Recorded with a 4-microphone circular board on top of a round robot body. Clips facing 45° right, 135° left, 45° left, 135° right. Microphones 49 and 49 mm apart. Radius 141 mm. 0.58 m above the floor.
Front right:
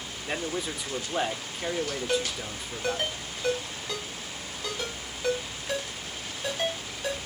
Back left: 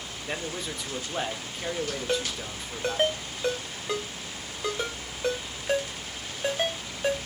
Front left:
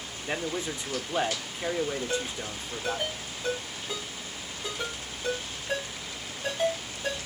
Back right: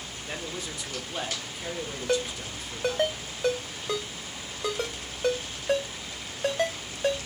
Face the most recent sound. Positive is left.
turn(degrees=-160)